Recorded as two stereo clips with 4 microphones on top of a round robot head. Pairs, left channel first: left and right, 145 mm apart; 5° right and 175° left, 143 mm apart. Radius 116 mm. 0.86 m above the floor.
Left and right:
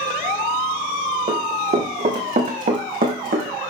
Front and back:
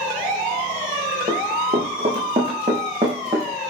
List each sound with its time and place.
1.3 s running footsteps: 125° right, 4.5 m; by 3.5 s 110° right, 3.5 m